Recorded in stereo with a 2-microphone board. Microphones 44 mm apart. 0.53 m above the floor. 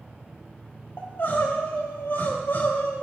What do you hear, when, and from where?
1.0 s crying: 60° left (ahead or behind), 3.5 m